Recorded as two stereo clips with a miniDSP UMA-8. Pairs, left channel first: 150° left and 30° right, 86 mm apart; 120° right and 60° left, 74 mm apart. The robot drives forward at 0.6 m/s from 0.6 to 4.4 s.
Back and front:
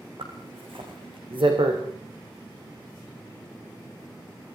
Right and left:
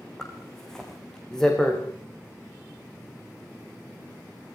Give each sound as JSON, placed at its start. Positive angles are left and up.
{"t": 0.2, "sound": "a zipper", "azimuth_deg": -35, "distance_m": 7.5}